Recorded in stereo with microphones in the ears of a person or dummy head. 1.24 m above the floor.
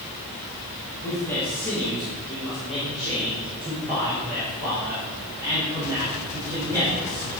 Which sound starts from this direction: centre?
A man speaking, at 1.0 s.